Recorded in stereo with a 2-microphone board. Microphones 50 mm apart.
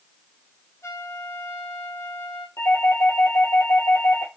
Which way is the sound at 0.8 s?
70° left (ahead or behind).